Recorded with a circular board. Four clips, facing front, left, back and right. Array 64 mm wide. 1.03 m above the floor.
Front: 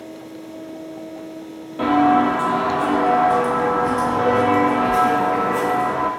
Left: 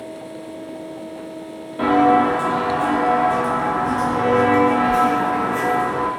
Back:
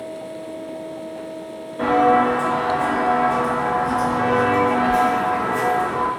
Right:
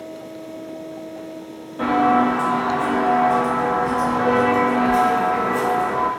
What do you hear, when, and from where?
1.8 s footsteps: 35° left, 1.2 m; by 6.1 s 5° right, 3 m